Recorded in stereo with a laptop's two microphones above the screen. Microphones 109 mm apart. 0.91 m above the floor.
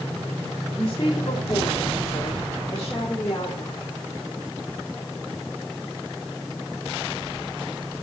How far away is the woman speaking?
About 2.5 m.